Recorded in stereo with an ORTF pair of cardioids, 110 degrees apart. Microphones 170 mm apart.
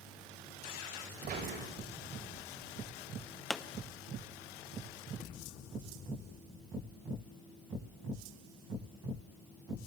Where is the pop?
5° left, 0.9 m.